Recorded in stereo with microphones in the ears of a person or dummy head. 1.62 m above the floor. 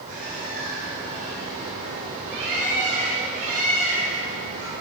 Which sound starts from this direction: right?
A bird, at 0.1 s.